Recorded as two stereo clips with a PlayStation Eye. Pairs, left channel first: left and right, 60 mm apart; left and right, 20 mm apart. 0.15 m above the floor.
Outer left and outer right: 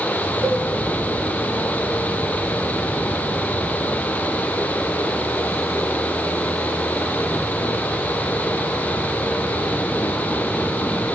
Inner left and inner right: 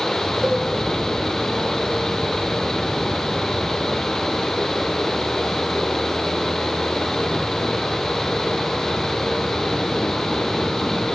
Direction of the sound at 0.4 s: 45° right (ahead or behind).